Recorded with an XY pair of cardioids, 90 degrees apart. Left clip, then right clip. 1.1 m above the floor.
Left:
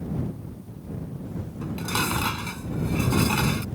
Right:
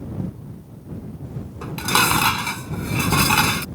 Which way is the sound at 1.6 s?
65° right.